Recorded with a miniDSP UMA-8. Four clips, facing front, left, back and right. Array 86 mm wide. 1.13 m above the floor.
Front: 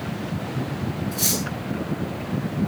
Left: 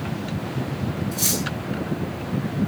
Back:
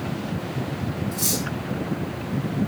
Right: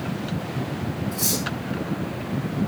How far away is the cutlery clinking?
About 8 m.